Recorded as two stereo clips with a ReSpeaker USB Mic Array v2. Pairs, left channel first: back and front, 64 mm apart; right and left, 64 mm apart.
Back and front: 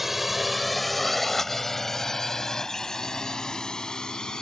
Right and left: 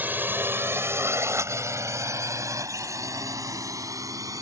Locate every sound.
0.0 s a drone: 80° left; by 4.4 s 105° left